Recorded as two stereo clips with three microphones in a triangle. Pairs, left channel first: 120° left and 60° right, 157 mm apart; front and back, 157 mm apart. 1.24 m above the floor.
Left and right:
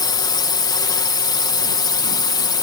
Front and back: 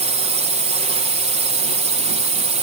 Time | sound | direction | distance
0.0 | a drone | 170° left | ?